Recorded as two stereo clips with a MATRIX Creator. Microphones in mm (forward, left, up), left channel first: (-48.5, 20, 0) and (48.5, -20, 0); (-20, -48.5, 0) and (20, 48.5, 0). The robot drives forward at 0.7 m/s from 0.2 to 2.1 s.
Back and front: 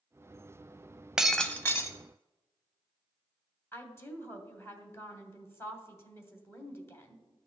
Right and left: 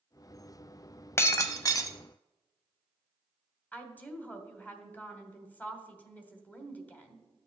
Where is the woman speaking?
165° right, 1.1 m.